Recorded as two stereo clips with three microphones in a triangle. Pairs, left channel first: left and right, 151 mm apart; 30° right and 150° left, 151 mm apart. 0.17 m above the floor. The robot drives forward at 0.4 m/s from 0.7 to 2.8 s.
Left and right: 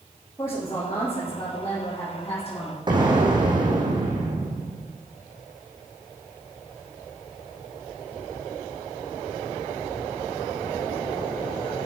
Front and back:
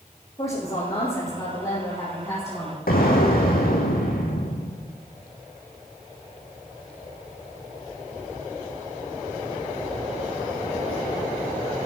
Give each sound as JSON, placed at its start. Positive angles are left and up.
{"t": 0.4, "sound": "a woman speaking", "azimuth_deg": 20, "distance_m": 6.0}
{"t": 2.9, "sound": "an explosion", "azimuth_deg": -30, "distance_m": 3.0}